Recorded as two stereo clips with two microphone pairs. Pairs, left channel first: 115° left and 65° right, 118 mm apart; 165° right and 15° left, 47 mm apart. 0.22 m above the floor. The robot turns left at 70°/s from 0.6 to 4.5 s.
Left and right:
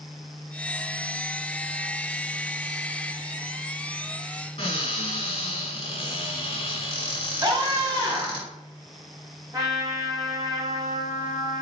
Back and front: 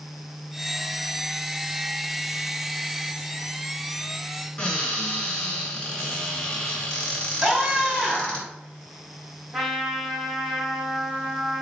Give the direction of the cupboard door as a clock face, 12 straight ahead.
8 o'clock.